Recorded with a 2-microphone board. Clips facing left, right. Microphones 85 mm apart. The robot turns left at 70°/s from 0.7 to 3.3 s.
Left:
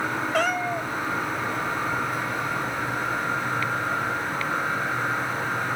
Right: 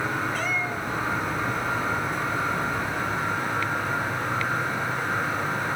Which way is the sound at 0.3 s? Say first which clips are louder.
Left 4 dB; 70° left (ahead or behind).